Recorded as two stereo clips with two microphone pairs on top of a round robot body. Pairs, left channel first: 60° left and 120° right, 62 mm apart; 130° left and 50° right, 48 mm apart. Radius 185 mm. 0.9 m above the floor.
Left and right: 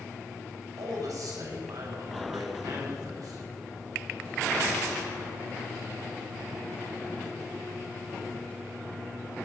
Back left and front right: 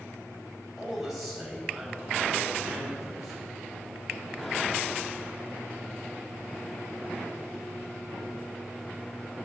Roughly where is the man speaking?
Behind right.